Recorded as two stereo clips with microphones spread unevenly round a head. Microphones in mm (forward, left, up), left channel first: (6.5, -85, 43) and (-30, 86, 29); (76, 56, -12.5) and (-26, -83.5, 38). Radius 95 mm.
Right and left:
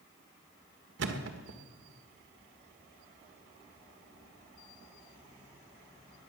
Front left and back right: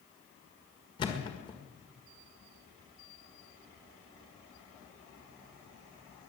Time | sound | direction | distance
1.0 | a thud | 125° left | 1.6 m